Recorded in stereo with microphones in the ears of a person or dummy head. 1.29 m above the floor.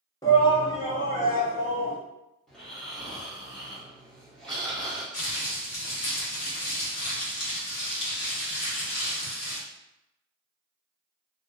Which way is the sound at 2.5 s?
5° left (ahead or behind).